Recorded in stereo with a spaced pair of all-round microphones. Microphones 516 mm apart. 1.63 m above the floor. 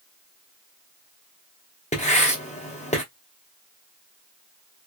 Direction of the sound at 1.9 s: 15° left (ahead or behind).